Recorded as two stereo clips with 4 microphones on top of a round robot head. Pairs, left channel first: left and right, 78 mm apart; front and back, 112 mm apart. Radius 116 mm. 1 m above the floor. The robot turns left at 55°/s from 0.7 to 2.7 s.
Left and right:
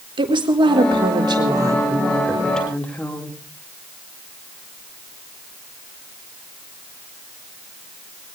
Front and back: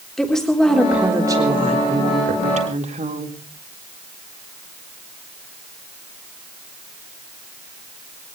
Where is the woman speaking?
85° right, 4 m; by 3.4 s 165° left, 4 m.